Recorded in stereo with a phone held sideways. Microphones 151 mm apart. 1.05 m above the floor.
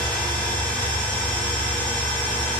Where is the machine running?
5° left (ahead or behind), 6.5 m.